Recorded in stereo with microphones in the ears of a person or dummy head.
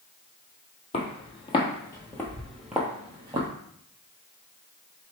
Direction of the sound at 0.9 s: 35° left (ahead or behind).